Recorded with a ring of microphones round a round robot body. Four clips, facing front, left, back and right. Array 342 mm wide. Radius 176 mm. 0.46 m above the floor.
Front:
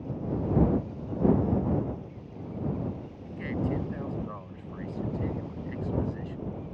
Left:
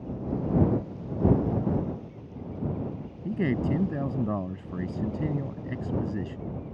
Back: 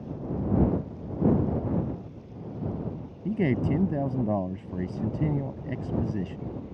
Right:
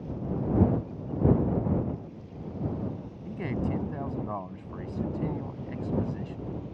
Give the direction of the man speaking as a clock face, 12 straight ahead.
7 o'clock.